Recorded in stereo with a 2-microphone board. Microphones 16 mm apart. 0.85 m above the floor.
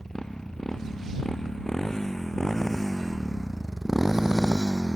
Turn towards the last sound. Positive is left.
turn(degrees=-45)  # may be behind; listen again after turning